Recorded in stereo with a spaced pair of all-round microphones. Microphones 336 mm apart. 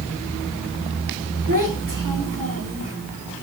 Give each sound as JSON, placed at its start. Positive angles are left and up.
{"t": 1.5, "sound": "a child speaking", "side_deg": -65, "distance_m": 1.3}